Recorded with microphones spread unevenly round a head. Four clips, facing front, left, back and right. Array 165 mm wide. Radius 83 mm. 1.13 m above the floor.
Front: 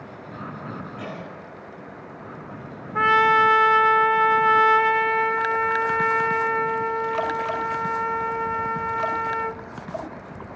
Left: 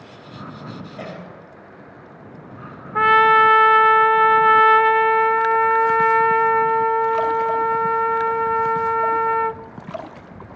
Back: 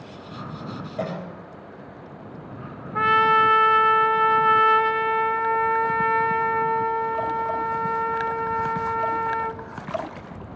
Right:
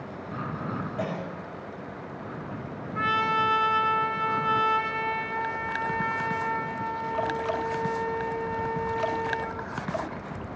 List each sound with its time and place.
1.0 s a cough: 175° right, 7 m
3.0 s a trumpet: 80° left, 0.6 m